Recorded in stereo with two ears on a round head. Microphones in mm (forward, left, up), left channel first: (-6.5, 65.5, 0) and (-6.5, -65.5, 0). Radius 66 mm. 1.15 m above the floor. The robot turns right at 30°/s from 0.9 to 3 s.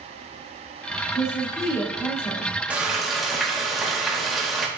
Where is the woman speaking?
10° right, 1.7 m; by 2.5 s 30° left, 1.7 m.